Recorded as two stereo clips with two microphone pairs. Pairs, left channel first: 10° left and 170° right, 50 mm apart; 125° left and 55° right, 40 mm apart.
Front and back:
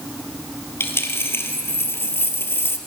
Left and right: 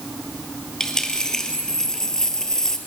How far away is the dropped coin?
About 2.0 m.